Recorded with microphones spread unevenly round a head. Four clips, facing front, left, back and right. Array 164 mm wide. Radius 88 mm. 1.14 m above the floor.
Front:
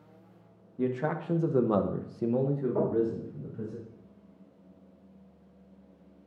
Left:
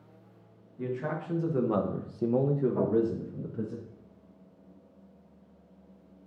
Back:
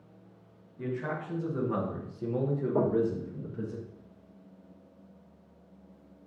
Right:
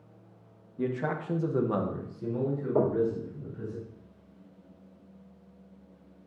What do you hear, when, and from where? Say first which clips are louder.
0.8 s a man speaking: right 2 dB, front 4 dB; 35° right, 1.4 m; by 3.8 s 105° left, 1.8 m
2.8 s knocking: right 3 dB, back 2 dB; 120° right, 4 m